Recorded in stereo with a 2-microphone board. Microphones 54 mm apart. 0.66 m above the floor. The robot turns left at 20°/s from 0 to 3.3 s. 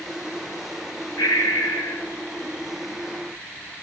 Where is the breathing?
75° left (ahead or behind), 5 m; by 2.0 s 55° left (ahead or behind), 5 m.